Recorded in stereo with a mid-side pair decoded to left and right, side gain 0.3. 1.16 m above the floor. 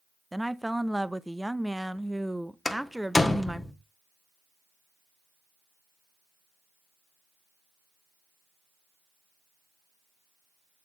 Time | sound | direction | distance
0.3 | a woman speaking | 5° right | 0.8 m
2.6 | a door slam | 30° left | 1.3 m